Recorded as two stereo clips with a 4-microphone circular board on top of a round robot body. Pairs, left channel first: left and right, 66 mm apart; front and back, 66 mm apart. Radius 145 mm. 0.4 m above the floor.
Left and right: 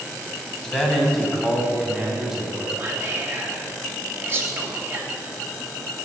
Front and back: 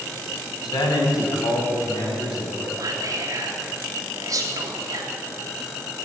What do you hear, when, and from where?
0.6 s a man speaking: 10° left, 3.5 m; by 2.7 s 10° right, 4 m
2.8 s whispering: 145° right, 2.5 m